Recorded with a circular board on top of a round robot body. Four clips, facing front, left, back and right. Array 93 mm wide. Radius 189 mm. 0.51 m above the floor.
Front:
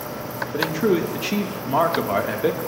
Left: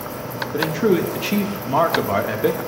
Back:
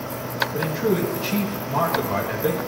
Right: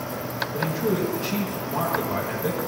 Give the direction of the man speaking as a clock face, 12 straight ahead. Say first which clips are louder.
Left 7 dB, front 3 dB; 10 o'clock.